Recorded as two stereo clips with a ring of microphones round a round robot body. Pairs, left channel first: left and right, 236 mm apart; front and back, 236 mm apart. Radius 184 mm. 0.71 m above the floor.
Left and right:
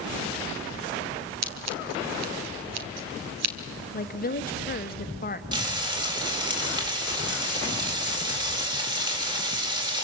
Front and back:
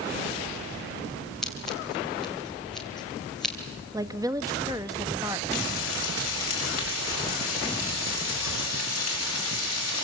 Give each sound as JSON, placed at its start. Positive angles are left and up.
{"t": 1.4, "sound": "scissors", "azimuth_deg": -90, "distance_m": 2.0}
{"t": 3.9, "sound": "a woman speaking", "azimuth_deg": 110, "distance_m": 1.3}
{"t": 5.5, "sound": "frying", "azimuth_deg": -20, "distance_m": 4.5}